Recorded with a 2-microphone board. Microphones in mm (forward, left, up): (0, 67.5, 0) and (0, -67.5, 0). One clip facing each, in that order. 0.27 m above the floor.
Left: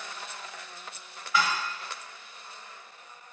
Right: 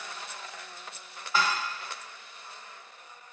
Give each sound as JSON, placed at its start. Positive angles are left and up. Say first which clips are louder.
{"t": 1.3, "sound": "dishes clattering", "louder": "left 1 dB", "side_deg": -30, "distance_m": 0.6}